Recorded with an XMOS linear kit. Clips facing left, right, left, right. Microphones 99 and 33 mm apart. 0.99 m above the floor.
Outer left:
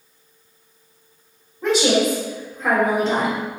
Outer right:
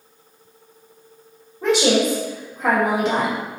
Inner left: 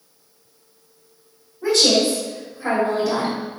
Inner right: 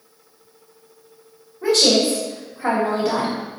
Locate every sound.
1.6 s a woman speaking: 70° right (ahead or behind), 1.6 m